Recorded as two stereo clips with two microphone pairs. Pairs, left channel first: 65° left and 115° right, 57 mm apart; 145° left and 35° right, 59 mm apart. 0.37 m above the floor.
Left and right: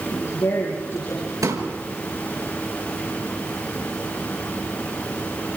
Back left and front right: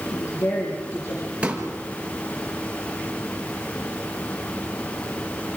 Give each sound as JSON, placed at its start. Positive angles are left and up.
{"t": 0.1, "sound": "a woman speaking", "azimuth_deg": 105, "distance_m": 7.0}
{"t": 1.4, "sound": "a pop", "azimuth_deg": -105, "distance_m": 5.0}